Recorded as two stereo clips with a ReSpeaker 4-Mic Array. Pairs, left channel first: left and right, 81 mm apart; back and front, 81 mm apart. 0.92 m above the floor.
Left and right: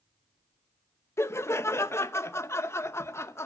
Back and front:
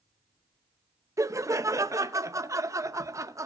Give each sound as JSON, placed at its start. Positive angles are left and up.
{"t": 1.2, "sound": "laughter", "azimuth_deg": 40, "distance_m": 0.5}